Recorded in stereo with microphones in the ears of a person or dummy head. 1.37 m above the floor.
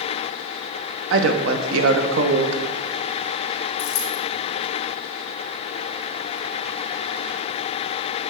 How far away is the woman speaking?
About 1.0 m.